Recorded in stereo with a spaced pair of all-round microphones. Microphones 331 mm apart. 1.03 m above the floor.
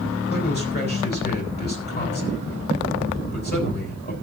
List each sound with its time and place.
0.3 s a man speaking: 30° left (ahead or behind), 7 m